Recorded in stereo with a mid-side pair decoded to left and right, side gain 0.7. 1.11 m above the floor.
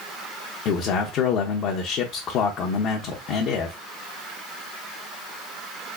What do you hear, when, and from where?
0.7 s a man speaking: 50° left, 0.7 m